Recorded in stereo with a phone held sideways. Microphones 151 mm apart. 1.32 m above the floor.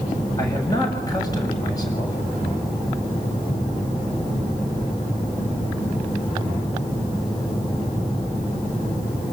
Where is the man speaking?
25° left (ahead or behind), 7.5 m.